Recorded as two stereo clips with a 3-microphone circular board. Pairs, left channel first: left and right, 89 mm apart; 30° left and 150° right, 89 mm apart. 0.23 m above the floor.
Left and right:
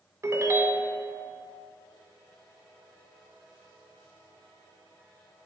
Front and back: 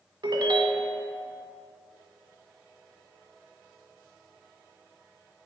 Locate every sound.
0.2 s a ringtone: 140° right, 0.6 m